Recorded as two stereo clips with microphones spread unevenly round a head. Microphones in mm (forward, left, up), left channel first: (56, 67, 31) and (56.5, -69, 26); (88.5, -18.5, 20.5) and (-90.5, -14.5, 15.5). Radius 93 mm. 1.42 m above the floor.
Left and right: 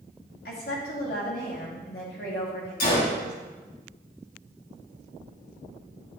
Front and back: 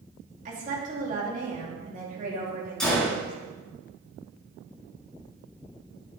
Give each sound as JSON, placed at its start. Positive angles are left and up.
{"t": 0.5, "sound": "a woman speaking", "azimuth_deg": 125, "distance_m": 2.5}
{"t": 2.8, "sound": "a gunshot", "azimuth_deg": 85, "distance_m": 3.5}